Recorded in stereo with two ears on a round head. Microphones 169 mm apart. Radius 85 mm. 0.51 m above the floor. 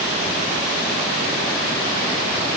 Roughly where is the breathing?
I don't hear breathing.